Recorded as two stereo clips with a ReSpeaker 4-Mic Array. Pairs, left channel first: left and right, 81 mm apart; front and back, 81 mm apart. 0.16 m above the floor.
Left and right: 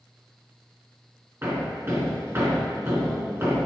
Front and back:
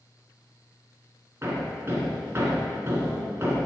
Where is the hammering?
140° right, 1.9 m.